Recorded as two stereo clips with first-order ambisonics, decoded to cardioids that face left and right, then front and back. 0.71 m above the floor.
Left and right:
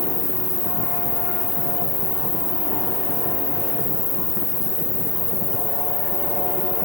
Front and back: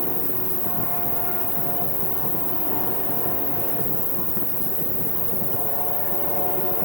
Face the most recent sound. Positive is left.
turn(degrees=85)